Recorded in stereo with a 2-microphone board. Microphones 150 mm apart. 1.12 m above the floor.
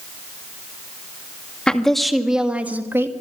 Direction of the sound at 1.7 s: 5° left (ahead or behind).